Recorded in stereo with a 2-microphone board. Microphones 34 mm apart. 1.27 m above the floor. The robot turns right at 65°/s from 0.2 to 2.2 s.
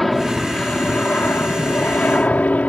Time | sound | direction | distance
0.0 | an aircraft | 5° left | ?